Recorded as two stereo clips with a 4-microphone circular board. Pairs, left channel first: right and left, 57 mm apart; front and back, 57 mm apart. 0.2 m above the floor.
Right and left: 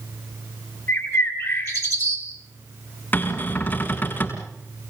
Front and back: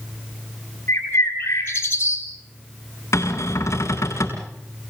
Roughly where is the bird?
Ahead right.